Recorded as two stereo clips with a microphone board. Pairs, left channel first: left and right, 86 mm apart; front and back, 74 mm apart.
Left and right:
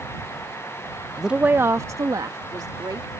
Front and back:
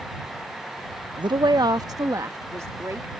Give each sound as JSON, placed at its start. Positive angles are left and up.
{"t": 1.2, "sound": "a woman speaking", "azimuth_deg": 180}